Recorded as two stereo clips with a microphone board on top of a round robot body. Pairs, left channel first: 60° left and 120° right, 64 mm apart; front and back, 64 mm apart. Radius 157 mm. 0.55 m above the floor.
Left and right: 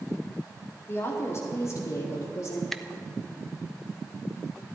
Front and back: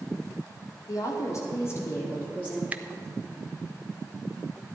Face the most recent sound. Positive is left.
turn(degrees=140)